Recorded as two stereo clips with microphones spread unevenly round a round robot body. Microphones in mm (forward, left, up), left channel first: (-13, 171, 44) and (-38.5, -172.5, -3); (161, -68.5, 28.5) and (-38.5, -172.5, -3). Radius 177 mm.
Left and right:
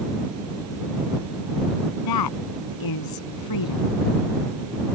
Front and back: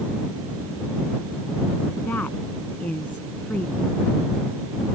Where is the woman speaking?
115° left.